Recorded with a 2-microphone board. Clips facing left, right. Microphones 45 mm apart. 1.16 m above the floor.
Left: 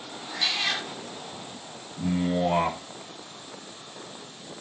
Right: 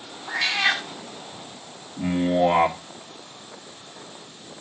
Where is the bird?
No bird in this recording.